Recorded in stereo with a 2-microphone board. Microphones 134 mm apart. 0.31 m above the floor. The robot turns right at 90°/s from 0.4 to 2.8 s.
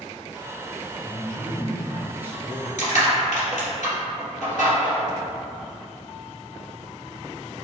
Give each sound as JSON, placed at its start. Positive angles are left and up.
{"t": 1.0, "sound": "a man speaking", "side_deg": 15, "distance_m": 0.9}
{"t": 2.8, "sound": "crushing", "side_deg": 70, "distance_m": 1.8}